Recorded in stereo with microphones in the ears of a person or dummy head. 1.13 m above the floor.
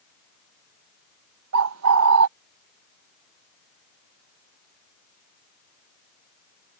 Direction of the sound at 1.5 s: 80° right.